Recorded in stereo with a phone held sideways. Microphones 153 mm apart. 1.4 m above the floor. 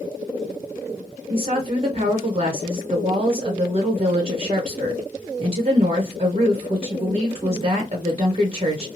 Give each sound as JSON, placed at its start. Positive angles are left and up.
{"t": 1.3, "sound": "a woman speaking", "side_deg": -40, "distance_m": 0.7}